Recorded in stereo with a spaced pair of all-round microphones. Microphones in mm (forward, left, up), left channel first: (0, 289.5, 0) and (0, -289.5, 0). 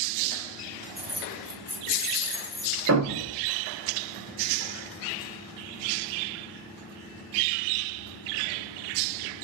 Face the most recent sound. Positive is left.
turn(degrees=-30)  # may be behind; listen again after turning